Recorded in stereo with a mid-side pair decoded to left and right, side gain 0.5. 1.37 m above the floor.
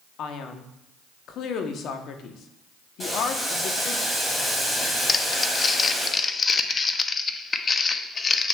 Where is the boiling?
15° left, 2.5 m.